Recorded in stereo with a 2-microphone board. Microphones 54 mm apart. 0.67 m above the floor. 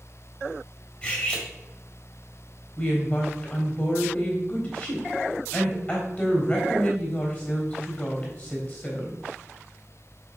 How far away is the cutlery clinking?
About 3 m.